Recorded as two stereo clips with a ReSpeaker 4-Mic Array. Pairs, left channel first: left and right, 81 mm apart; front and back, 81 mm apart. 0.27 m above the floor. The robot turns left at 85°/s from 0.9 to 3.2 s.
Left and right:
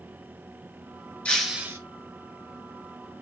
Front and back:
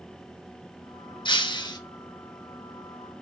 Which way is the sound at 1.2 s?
15° left.